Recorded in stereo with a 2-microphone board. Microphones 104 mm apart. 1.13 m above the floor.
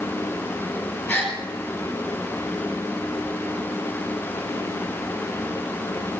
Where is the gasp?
25° left (ahead or behind), 3.5 m.